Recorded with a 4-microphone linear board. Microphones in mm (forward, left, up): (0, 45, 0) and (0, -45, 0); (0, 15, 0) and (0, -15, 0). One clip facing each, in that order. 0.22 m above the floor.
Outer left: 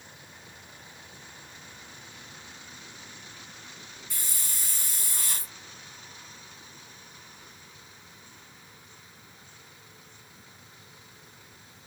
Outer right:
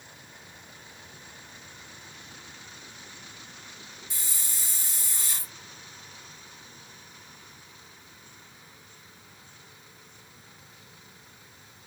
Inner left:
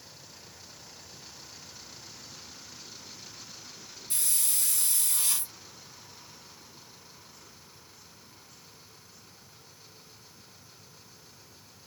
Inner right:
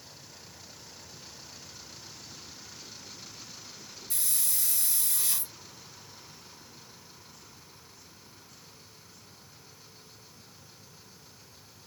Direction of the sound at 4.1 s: 55° left (ahead or behind).